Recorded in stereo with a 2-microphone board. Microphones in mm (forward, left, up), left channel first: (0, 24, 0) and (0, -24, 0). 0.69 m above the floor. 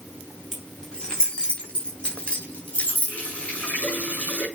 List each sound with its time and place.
0.5 s keys jangling: 15° left (ahead or behind), 3.5 m; by 3.2 s 30° left (ahead or behind), 4.5 m
3.1 s a running tap: 30° left (ahead or behind), 5 m